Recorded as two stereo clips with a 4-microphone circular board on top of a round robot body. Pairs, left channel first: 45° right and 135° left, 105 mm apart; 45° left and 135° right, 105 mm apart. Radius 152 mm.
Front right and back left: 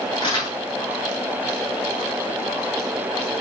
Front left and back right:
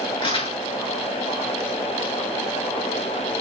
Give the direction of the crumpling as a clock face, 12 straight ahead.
12 o'clock.